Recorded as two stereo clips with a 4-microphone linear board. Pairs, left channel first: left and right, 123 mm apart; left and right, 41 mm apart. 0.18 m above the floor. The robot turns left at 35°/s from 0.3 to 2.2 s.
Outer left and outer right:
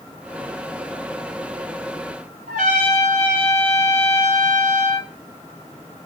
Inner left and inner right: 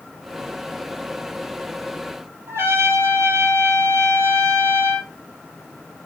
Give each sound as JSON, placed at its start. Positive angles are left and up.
{"t": 2.5, "sound": "a trumpet", "side_deg": -75, "distance_m": 4.0}